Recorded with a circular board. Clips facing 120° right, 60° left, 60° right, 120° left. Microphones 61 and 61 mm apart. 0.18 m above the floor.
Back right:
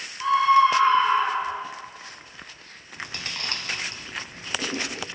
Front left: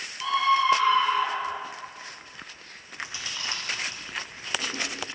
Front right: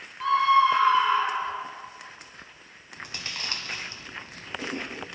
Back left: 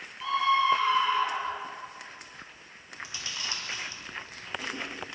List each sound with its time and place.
0.2 s a scream: 75° right, 1.9 m; by 1.6 s 95° right, 1.4 m
3.0 s chewing: 90° right, 1.3 m